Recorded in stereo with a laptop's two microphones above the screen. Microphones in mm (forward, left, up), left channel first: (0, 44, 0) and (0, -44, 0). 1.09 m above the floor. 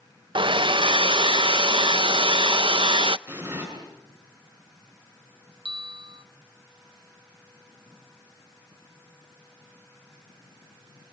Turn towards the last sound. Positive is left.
turn(degrees=-75)  # may be behind; listen again after turning